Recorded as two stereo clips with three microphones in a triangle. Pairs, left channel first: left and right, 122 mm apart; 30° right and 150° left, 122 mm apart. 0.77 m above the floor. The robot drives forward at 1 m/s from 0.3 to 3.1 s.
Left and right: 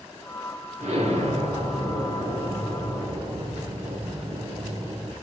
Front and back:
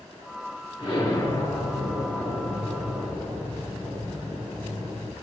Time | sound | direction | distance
0.8 | an explosion | 75° right | 3.5 m